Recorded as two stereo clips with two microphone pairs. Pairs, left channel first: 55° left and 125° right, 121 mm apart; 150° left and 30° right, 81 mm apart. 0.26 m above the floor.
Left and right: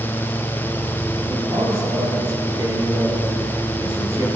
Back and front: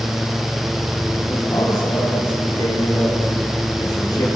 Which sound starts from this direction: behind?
A man speaking, at 1.3 s.